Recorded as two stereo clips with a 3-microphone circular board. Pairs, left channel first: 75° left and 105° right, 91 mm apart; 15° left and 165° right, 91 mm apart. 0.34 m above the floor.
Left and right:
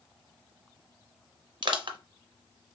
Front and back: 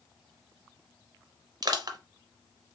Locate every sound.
1.6 s crushing: 125° right, 0.7 m